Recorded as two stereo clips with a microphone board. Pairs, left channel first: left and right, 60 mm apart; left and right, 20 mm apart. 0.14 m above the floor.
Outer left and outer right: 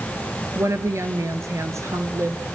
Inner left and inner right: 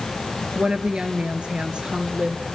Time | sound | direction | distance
0.6 | a woman speaking | 55° right (ahead or behind) | 1.9 m